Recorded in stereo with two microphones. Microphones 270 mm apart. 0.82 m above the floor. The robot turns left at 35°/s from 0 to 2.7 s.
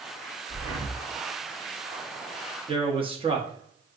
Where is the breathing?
45° right (ahead or behind), 1.1 m; by 1.0 s 60° right (ahead or behind), 1.1 m.